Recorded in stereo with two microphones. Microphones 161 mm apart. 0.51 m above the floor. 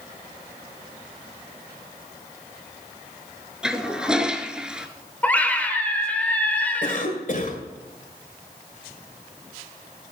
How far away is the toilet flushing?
About 1.0 m.